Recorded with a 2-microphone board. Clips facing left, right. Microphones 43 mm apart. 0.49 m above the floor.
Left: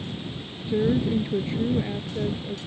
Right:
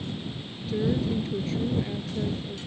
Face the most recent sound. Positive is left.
turn(degrees=20)  # may be behind; listen again after turning